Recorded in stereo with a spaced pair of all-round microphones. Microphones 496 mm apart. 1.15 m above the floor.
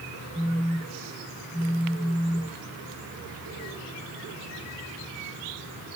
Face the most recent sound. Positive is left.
turn(degrees=5)  # may be behind; listen again after turning